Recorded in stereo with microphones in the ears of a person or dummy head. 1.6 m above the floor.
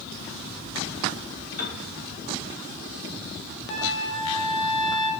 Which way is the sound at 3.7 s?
65° left (ahead or behind).